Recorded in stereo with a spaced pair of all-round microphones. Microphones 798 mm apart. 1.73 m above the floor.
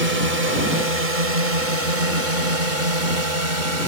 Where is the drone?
75° right (ahead or behind); by 3.9 s 70° right (ahead or behind).